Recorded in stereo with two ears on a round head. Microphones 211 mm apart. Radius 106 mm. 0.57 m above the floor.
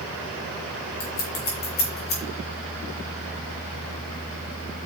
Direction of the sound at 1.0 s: 45° left (ahead or behind).